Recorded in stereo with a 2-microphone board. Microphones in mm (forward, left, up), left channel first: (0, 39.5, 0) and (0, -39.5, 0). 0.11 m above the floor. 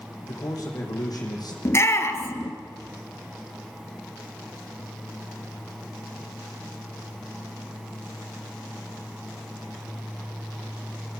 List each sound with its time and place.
0.2 s a man speaking: 45° left (ahead or behind), 5.5 m; by 1.6 s 55° left (ahead or behind), 5 m
1.6 s a shout: 35° left (ahead or behind), 1.9 m